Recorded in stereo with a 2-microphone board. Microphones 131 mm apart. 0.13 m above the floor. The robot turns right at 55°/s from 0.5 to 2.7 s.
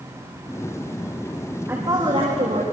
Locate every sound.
1.7 s a woman speaking: 160° right, 6.5 m; by 2.6 s 105° right, 6.5 m